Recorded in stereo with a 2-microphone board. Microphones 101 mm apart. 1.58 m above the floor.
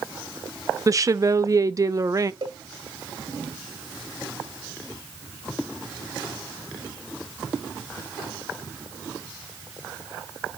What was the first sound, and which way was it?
A woman speaking, 35° right (ahead or behind).